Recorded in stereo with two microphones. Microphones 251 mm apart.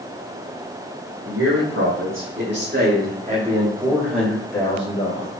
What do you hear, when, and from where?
1.2 s a man speaking: 65° right (ahead or behind), 2.5 m; by 5.3 s 30° left (ahead or behind), 1.7 m